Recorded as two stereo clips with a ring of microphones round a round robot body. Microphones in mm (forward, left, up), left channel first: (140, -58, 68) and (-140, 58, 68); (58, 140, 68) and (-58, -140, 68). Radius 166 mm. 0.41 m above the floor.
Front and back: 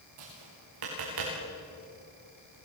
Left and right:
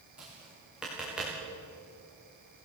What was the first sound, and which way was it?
Tapping, 160° left.